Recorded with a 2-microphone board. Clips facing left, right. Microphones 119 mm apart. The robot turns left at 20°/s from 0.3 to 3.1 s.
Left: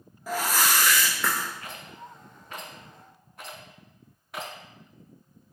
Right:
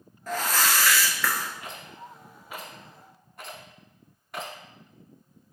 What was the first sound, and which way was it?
A whoosh, 10° left (ahead or behind).